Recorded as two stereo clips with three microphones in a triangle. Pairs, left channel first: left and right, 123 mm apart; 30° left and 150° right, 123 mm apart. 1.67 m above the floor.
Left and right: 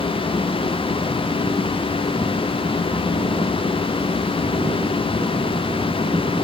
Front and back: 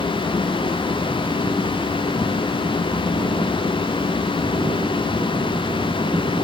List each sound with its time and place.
Only background noise.